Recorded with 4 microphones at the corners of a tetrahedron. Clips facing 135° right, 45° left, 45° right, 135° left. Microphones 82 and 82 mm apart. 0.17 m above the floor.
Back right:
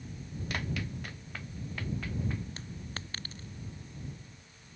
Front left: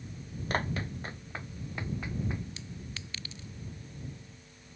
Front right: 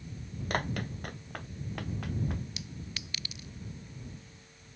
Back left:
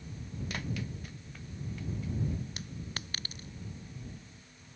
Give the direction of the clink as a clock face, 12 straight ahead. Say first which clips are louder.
Back right 1 dB, back left 1 dB; 6 o'clock.